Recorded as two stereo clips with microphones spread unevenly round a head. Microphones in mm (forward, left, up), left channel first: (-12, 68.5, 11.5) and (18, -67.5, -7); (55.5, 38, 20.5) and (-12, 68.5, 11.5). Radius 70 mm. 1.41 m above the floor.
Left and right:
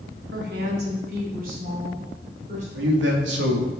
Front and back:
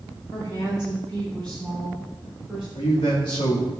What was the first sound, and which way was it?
A woman speaking, 90° right.